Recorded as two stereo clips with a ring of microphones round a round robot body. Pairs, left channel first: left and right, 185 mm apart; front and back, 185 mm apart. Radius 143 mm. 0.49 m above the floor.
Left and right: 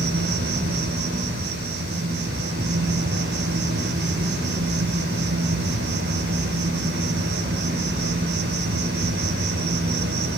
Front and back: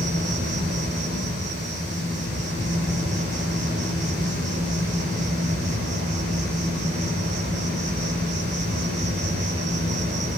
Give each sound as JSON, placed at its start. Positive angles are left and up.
{"t": 0.0, "sound": "an insect", "azimuth_deg": -125, "distance_m": 5.0}